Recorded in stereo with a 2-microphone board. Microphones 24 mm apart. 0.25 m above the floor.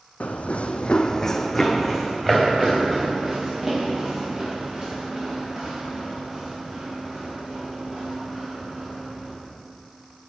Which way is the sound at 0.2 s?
75° left (ahead or behind).